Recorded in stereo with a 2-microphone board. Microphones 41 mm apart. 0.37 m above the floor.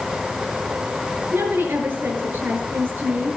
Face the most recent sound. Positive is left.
turn(degrees=-65)  # may be behind; listen again after turning